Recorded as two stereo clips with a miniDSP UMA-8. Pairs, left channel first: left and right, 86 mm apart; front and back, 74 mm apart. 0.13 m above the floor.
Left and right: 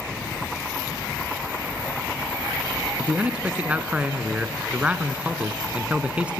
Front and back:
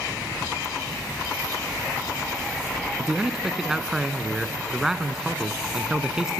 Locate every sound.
3.0 s a man speaking: 120° right, 1.1 m